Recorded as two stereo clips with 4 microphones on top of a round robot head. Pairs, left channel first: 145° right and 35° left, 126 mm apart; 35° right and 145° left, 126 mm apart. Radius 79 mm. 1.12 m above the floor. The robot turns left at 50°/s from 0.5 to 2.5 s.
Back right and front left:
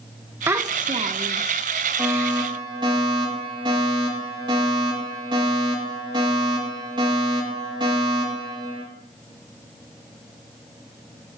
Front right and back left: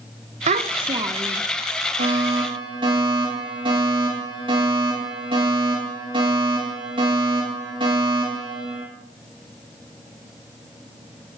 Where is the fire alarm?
115° left, 9.5 m; by 8.8 s 90° left, 9.5 m.